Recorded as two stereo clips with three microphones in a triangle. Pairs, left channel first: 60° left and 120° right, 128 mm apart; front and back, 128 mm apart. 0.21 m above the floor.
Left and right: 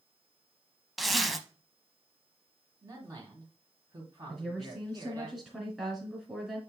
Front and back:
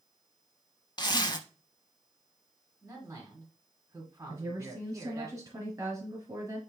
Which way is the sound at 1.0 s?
30° right.